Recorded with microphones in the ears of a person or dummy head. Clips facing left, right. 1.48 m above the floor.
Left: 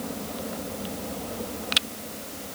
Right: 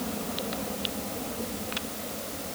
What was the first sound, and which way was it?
Only background noise.